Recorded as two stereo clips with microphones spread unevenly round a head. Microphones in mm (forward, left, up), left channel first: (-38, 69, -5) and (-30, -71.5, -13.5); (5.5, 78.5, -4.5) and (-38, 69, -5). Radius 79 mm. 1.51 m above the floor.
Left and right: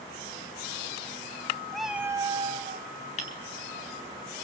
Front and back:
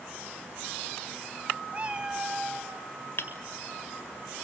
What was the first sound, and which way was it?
A cat meowing, 170° left.